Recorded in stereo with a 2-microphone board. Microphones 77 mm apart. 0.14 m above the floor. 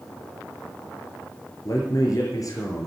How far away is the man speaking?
About 7.5 m.